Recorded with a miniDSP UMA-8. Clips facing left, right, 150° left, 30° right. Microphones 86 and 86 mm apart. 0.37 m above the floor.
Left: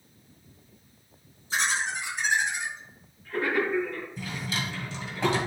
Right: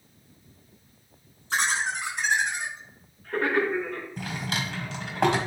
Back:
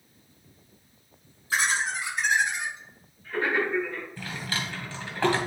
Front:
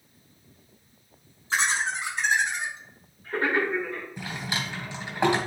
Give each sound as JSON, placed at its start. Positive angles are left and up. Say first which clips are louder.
{"t": 1.5, "sound": "laughter", "louder": "right 2 dB, even", "azimuth_deg": -90, "distance_m": 4.0}
{"t": 4.2, "sound": "a drawer", "louder": "right 3 dB, front 1 dB", "azimuth_deg": -100, "distance_m": 1.5}